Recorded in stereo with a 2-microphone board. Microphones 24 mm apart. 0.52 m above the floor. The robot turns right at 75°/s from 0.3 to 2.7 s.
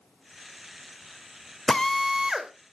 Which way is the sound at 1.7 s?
155° left.